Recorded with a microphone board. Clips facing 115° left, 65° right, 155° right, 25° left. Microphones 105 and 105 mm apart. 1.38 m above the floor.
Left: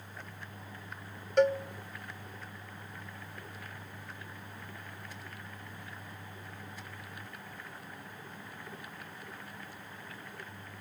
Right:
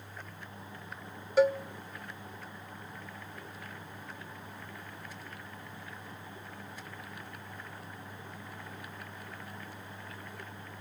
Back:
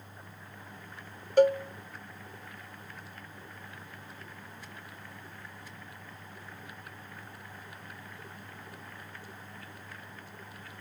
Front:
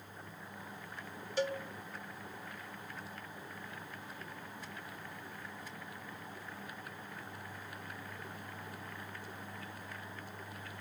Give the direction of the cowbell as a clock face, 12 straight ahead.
5 o'clock.